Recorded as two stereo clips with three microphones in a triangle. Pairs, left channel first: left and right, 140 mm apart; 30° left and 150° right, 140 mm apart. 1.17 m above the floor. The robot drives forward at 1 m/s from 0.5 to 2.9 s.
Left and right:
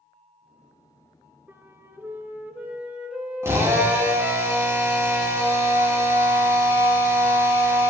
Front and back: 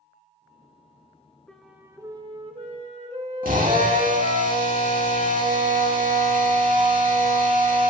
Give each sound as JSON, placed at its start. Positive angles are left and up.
{"t": 1.5, "sound": "a flute", "azimuth_deg": -45, "distance_m": 0.9}
{"t": 3.4, "sound": "a drill", "azimuth_deg": -160, "distance_m": 2.5}